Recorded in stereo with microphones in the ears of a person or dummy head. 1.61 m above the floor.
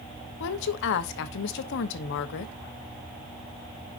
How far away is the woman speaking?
About 0.9 m.